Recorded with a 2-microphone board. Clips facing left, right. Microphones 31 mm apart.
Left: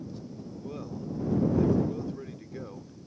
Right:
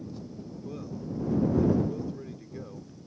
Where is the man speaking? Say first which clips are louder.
Left 1 dB; 15° left (ahead or behind).